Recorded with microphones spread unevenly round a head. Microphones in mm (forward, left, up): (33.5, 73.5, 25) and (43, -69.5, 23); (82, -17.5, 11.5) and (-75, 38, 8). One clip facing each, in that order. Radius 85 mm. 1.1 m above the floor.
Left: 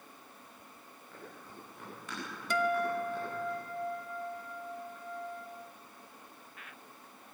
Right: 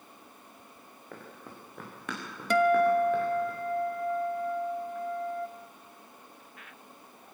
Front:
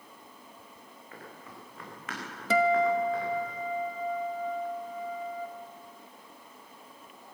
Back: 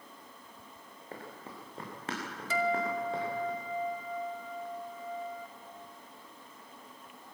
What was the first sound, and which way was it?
Running footsteps, 140° right.